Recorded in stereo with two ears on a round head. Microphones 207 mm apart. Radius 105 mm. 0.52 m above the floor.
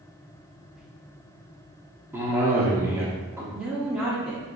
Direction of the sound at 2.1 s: 10° right (ahead or behind).